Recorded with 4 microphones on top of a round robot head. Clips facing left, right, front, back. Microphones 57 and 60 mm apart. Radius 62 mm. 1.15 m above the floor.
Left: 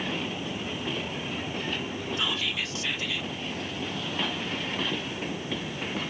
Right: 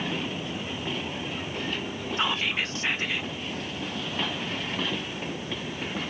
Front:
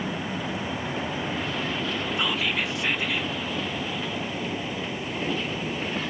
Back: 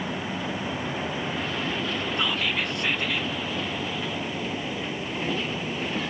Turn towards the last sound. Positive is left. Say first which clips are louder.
# right 5 dB, even
turn(degrees=-80)